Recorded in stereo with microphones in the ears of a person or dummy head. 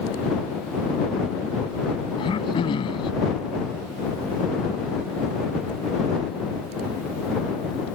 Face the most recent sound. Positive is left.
turn(degrees=30)  # may be behind; listen again after turning